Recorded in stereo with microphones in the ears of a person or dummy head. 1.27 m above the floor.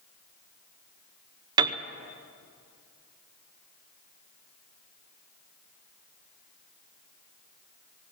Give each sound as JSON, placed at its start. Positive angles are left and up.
{"t": 1.6, "sound": "a piano", "side_deg": -25, "distance_m": 0.7}